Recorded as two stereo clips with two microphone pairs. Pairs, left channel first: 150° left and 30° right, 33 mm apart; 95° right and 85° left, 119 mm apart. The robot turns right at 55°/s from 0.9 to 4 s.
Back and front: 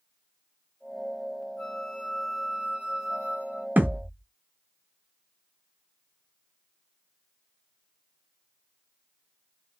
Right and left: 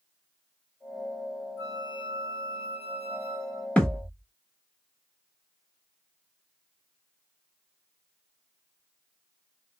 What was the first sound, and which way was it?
A flute, 160° right.